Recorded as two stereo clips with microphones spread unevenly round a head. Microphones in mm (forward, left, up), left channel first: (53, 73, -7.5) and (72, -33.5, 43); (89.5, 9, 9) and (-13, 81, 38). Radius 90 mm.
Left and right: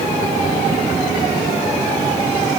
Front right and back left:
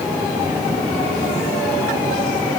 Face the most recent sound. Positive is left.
No sound to turn to.